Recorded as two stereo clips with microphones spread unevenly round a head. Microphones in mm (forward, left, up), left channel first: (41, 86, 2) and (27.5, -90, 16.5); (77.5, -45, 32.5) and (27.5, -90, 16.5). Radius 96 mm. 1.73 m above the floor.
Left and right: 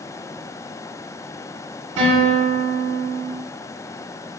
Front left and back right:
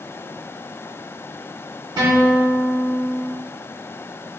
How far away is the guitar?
About 1.7 m.